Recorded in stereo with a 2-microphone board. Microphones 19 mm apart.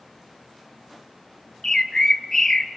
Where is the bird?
25° left (ahead or behind), 0.7 m.